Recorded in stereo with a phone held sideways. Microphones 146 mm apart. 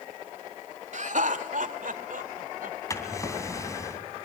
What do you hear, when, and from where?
0.9 s laughter: 55° right (ahead or behind), 1.8 m; by 2.8 s 70° right (ahead or behind), 3.5 m
2.9 s a drawer: 20° left (ahead or behind), 3 m